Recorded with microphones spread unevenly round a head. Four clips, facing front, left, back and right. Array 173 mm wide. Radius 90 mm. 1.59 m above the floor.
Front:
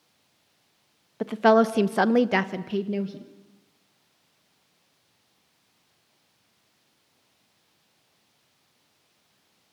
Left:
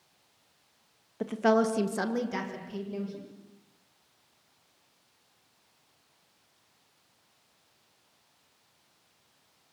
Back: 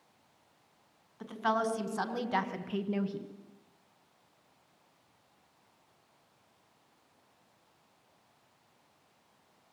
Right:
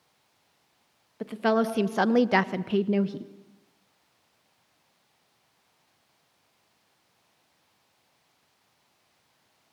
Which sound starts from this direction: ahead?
A woman speaking, at 1.2 s.